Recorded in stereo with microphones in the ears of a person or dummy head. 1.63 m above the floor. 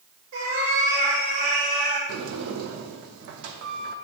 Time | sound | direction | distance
0.3 | a cat meowing | 70° right (ahead or behind) | 3.5 m
2.1 | a sliding door | 60° right (ahead or behind) | 0.7 m